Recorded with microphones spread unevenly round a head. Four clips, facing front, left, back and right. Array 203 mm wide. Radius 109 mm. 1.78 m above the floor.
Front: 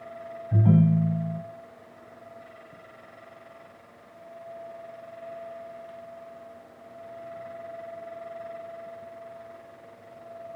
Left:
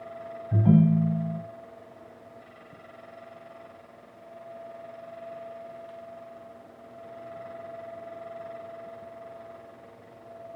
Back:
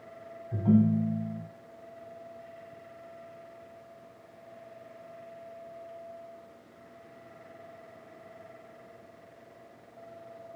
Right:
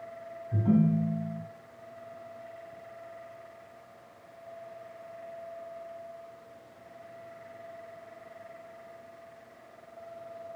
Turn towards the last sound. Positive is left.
turn(degrees=55)